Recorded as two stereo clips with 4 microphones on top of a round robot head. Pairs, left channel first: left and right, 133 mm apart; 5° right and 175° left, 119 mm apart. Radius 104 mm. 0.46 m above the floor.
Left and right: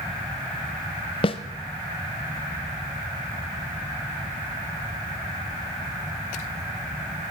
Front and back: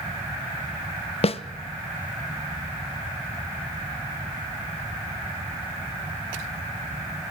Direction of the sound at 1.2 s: 35° left.